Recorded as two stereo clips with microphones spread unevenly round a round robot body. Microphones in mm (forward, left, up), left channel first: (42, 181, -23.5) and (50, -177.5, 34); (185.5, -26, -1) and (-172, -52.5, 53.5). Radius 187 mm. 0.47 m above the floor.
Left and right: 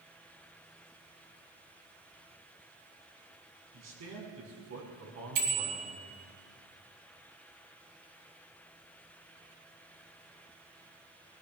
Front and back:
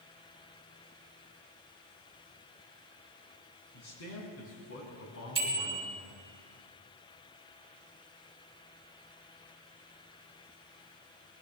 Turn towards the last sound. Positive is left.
turn(degrees=-100)